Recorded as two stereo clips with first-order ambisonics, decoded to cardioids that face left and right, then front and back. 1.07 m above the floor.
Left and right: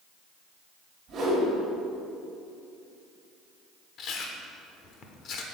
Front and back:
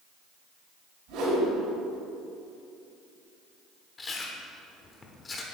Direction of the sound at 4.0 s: 65° left.